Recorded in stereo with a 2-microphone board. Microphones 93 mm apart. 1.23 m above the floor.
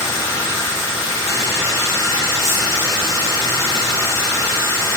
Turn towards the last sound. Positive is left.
turn(degrees=30)  # may be behind; listen again after turning